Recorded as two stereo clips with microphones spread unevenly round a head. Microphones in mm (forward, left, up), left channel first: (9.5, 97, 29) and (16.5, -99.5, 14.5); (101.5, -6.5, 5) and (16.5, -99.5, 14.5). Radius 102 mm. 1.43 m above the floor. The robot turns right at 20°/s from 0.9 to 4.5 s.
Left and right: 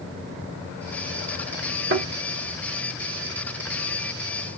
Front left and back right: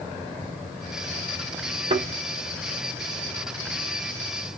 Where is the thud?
115° right, 1.6 m; by 2.1 s 110° right, 1.6 m.